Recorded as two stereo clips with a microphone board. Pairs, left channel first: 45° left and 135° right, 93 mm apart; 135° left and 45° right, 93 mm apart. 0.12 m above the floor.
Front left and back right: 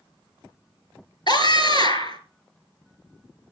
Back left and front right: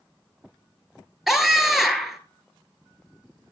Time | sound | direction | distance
1.3 | a scream | 40° left | 2 m